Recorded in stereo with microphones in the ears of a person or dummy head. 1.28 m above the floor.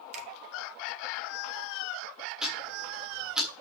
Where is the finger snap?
40° right (ahead or behind), 3 m.